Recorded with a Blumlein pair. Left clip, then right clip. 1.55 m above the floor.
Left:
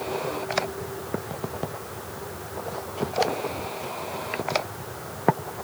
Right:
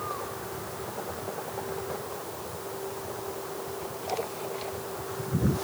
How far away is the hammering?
I don't hear hammering.